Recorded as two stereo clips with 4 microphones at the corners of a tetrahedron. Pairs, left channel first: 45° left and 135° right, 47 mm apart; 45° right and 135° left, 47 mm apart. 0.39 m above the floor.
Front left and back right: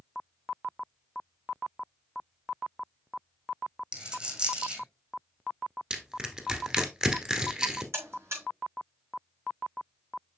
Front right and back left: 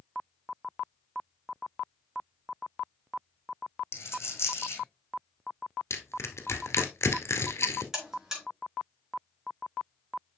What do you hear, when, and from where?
3.9 s a dropped coin: 65° right, 1.9 m
5.9 s crushing: 60° right, 1.4 m
7.9 s a buzzer: 145° right, 5.5 m